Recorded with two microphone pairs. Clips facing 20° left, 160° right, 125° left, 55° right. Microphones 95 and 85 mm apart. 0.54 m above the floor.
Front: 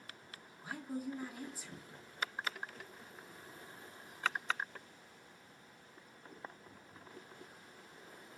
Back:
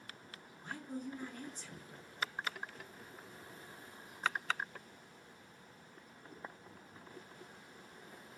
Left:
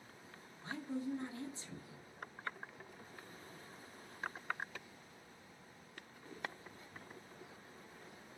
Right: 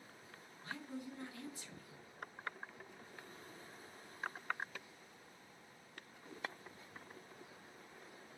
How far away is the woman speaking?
About 0.7 m.